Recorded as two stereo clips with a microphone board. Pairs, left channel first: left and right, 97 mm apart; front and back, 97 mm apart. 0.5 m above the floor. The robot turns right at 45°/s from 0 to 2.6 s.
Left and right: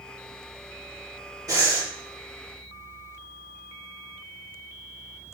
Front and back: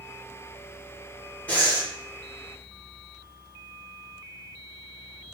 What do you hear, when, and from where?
1.5 s breathing: 65° right, 1.6 m; by 1.9 s 45° right, 1.6 m